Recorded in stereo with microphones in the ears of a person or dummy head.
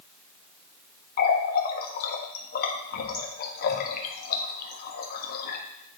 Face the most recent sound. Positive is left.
turn(degrees=55)  # may be behind; listen again after turning